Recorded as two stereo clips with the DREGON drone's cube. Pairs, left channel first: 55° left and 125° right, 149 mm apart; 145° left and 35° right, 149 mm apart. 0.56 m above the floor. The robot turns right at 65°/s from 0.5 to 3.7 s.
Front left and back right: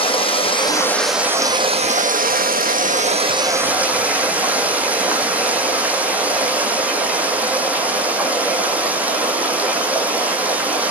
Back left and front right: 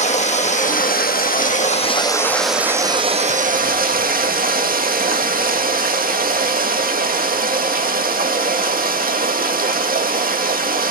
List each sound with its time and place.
0.0 s running water: 105° left, 1.9 m; by 10.9 s 45° right, 1.9 m